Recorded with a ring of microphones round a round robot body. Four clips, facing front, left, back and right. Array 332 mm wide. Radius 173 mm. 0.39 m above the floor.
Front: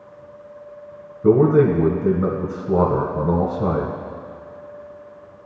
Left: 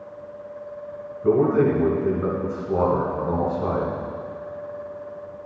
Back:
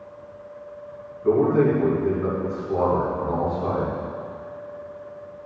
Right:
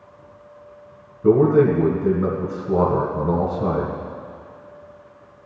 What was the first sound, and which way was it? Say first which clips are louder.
A man speaking: right 4 dB, front 4 dB; 25° right.